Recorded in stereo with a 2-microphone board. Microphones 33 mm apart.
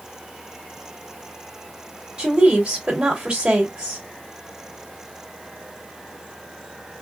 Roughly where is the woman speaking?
Right.